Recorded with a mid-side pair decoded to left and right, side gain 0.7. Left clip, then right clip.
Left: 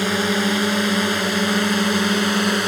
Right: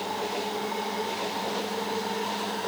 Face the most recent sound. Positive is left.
turn(degrees=60)